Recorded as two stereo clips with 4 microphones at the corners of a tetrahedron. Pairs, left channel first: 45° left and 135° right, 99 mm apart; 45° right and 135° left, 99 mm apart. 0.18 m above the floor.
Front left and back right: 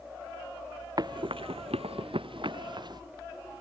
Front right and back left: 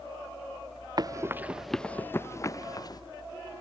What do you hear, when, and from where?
1.0 s running footsteps: straight behind; by 3.0 s 95° right